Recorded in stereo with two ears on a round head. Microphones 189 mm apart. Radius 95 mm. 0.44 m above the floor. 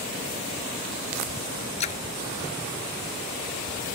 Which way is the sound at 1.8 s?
30° left (ahead or behind).